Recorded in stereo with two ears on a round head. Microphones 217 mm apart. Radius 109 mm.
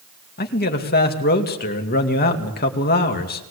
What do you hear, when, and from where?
0.4 s a man speaking: 40° left (ahead or behind), 2.5 m